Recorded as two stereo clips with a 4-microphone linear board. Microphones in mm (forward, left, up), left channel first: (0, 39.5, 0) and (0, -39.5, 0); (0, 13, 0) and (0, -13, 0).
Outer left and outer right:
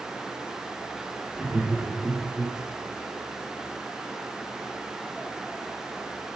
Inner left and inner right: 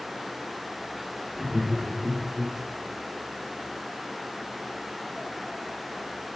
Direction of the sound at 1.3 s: 15° right (ahead or behind).